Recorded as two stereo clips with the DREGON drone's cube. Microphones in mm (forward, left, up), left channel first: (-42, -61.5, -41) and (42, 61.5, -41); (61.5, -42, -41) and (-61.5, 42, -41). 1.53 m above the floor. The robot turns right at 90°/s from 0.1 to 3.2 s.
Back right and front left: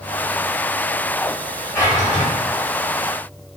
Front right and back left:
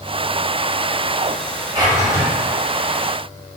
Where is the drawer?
170° left, 1.5 m; by 2.3 s 140° right, 1.5 m.